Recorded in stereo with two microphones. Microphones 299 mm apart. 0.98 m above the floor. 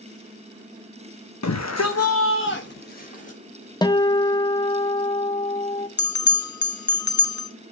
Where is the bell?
80° left, 0.8 m.